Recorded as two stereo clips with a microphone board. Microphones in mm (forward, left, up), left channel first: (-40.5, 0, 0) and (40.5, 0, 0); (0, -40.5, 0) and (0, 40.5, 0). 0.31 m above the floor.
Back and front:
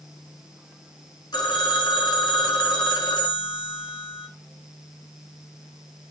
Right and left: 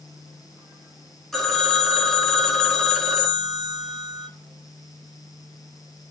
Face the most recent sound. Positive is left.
turn(degrees=-175)